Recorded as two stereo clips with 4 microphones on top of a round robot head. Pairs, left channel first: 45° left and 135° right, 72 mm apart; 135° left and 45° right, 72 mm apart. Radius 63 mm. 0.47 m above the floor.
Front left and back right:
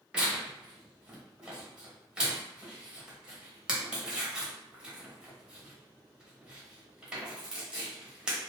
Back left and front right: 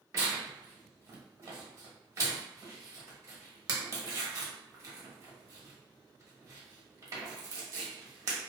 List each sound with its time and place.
0.1 s tearing paper: 65° right, 1.0 m